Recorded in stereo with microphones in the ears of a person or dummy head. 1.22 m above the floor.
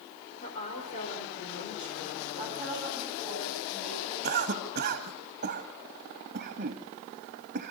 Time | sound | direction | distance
0.4 | a woman speaking | 40° left (ahead or behind) | 4 m
2.4 | a woman speaking | centre (ahead or behind) | 8.5 m
4.2 | a cough | 45° right (ahead or behind) | 1.8 m